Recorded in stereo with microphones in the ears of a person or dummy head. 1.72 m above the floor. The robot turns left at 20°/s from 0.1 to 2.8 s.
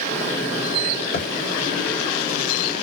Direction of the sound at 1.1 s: 55° left (ahead or behind).